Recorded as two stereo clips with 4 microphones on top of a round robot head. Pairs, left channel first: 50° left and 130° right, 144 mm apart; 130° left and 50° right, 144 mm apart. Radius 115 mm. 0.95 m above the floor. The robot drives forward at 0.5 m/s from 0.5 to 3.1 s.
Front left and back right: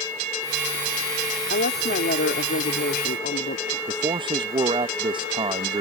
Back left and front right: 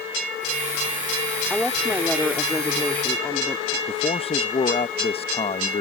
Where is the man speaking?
175° left.